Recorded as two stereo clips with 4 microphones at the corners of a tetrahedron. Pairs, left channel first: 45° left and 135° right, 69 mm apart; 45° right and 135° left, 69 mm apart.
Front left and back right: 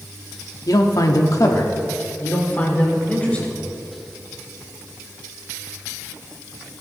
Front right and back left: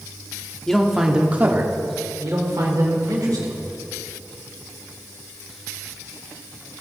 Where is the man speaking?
35° left, 1.0 m; by 3.6 s 115° left, 2.5 m.